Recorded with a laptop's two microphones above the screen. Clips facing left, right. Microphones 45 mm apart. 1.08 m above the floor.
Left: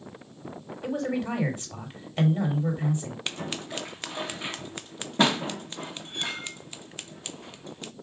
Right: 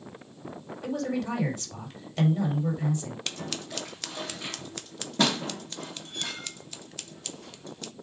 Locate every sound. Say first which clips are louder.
0.8 s a man speaking: left 1 dB; 25° left (ahead or behind), 4 m
3.3 s scissors: left 5 dB; 20° left (ahead or behind), 0.6 m